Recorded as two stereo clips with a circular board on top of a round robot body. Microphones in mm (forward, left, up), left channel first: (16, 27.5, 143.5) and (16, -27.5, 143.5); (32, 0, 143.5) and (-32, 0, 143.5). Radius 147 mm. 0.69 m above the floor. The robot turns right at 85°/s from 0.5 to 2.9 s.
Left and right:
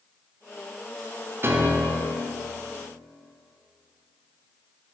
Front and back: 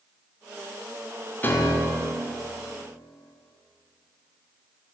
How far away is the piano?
About 0.9 m.